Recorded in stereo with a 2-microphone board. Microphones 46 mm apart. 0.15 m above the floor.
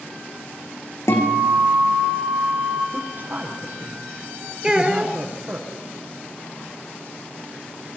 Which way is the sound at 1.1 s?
75° left (ahead or behind).